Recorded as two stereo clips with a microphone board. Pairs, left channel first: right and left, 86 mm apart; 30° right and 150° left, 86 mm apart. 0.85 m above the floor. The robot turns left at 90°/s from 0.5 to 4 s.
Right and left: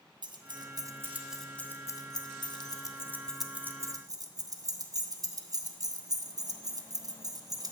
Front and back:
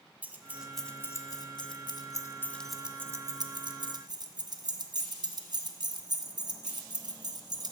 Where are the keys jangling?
80° left, 0.6 m; by 7.7 s 125° left, 0.6 m.